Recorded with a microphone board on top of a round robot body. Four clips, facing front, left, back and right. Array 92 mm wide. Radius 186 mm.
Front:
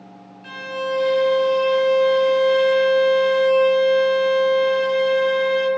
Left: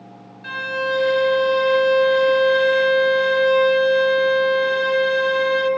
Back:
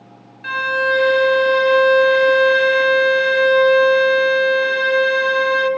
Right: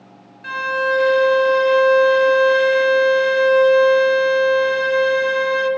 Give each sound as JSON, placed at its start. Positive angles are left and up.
{"t": 0.4, "sound": "a violin", "azimuth_deg": -160, "distance_m": 1.6}